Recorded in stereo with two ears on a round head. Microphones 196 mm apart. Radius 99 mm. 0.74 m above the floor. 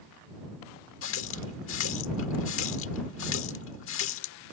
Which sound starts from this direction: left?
A running tap, at 1.0 s.